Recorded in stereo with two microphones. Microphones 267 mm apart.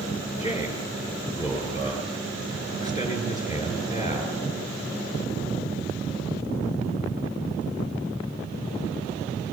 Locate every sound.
0.4 s a man speaking: 25° left (ahead or behind), 7.5 m